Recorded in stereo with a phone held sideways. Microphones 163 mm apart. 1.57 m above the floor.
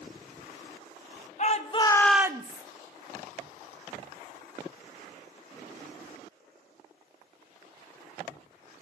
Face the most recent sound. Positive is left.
turn(degrees=-50)  # may be behind; listen again after turning